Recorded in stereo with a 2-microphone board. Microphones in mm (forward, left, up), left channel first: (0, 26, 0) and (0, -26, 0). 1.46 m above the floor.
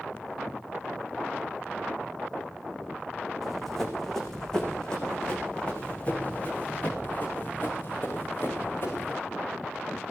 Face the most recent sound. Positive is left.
turn(degrees=50)  # may be behind; listen again after turning